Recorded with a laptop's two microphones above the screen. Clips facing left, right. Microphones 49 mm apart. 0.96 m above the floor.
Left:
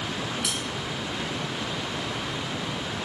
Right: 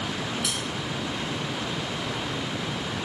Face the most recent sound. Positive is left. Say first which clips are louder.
# even
turn(degrees=10)  # may be behind; listen again after turning